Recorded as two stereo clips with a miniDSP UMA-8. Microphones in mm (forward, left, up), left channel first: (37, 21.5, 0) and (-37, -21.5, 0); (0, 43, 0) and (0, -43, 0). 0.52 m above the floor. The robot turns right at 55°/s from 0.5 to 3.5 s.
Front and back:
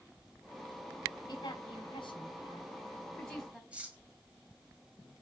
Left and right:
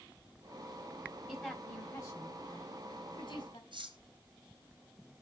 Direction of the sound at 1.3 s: Straight ahead.